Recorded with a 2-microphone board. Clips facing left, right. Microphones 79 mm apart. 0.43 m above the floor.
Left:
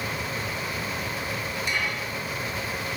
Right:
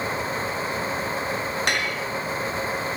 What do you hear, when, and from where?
1.7 s dishes clattering: 80° right, 4.5 m